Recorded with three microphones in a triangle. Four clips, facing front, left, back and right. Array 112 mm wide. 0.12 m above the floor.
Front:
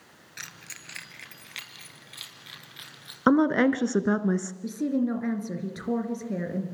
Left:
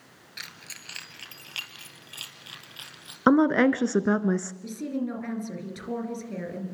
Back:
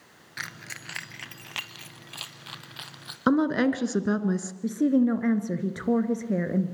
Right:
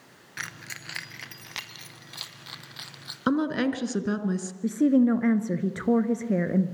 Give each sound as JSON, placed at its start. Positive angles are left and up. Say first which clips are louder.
{"t": 0.4, "sound": "keys jangling", "louder": "right 7 dB, back 7 dB", "azimuth_deg": -145, "distance_m": 1.3}
{"t": 3.3, "sound": "a woman speaking", "louder": "left 6 dB, front 2 dB", "azimuth_deg": 65, "distance_m": 1.4}
{"t": 4.6, "sound": "a woman speaking", "louder": "right 11 dB, back 6 dB", "azimuth_deg": -120, "distance_m": 2.0}